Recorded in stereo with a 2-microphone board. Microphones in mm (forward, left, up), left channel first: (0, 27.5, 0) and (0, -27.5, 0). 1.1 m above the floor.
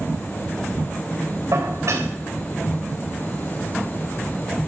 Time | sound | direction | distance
1.5 | dishes clattering | 70° right (ahead or behind) | 3.5 m